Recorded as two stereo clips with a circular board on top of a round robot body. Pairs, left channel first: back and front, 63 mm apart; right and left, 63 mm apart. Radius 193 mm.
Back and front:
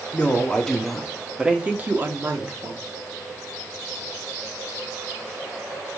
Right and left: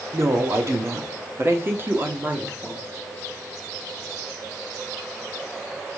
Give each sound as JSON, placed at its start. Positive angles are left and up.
{"t": 0.1, "sound": "a woman speaking", "azimuth_deg": 110, "distance_m": 1.9}